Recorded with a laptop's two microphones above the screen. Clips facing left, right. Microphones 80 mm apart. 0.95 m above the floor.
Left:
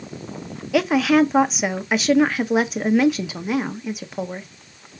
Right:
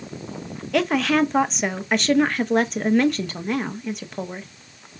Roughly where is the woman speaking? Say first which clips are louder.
Left 3 dB; centre.